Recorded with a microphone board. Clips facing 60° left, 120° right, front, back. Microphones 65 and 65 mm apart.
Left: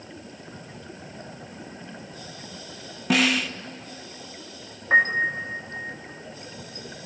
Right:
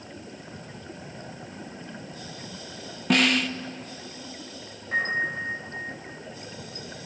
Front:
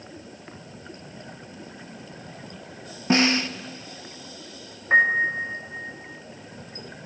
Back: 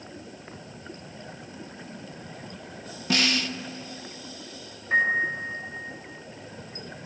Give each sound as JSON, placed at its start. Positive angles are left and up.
{"t": 3.1, "sound": "a snare drum", "azimuth_deg": -25, "distance_m": 0.7}
{"t": 4.9, "sound": "a piano", "azimuth_deg": 50, "distance_m": 3.0}